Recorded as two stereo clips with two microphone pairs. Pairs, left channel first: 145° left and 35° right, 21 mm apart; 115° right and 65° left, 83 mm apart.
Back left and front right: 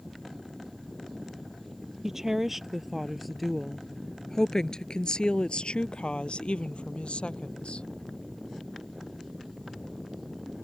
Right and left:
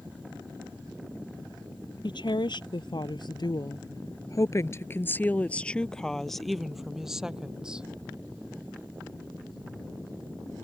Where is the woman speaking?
100° right; by 7.9 s 140° left.